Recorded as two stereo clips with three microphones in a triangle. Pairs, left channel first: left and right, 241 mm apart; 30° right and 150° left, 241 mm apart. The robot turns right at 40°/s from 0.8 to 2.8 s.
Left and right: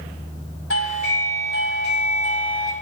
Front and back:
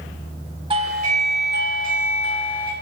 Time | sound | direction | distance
0.7 | a doorbell | 85° left | 3 m